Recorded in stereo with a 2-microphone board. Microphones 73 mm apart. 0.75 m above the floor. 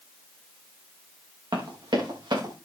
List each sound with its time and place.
1.5 s running footsteps: 80° right, 6.5 m